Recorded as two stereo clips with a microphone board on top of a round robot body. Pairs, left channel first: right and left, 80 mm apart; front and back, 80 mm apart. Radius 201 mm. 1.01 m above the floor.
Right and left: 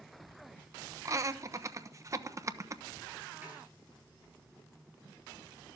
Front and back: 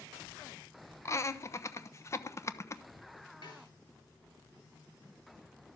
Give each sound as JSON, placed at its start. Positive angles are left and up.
{"t": 1.1, "sound": "laughter", "azimuth_deg": 45, "distance_m": 1.1}
{"t": 3.4, "sound": "a snare drum", "azimuth_deg": 20, "distance_m": 9.0}